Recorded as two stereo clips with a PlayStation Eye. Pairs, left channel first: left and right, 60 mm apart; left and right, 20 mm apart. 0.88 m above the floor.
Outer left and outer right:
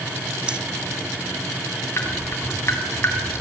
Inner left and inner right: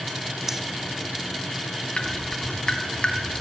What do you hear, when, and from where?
0.5 s breathing: 20° right (ahead or behind), 0.6 m
2.0 s dripping: 45° left (ahead or behind), 3 m